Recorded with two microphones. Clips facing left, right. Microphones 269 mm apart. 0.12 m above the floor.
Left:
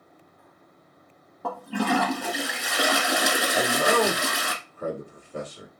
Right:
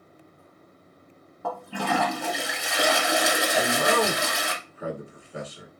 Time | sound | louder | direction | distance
1.4 | a toilet flushing | left 4 dB | centre (ahead or behind) | 0.9 m
3.5 | a man speaking | left 2 dB | 10° right (ahead or behind) | 1.3 m